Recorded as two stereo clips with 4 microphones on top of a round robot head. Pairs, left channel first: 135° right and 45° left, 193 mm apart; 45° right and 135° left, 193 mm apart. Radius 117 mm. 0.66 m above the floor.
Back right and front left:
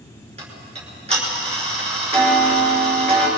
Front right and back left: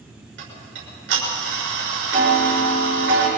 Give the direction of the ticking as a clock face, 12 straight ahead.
9 o'clock.